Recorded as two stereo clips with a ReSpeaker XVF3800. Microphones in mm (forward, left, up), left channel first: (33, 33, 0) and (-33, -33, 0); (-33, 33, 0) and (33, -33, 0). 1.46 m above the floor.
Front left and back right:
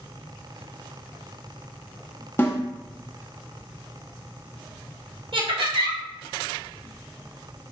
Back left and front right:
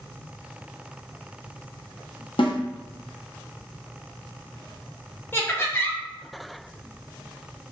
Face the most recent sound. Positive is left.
turn(degrees=-160)